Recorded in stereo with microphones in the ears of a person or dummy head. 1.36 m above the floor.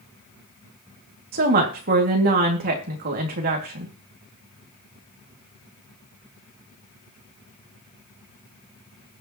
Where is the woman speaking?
50° right (ahead or behind), 2.5 m.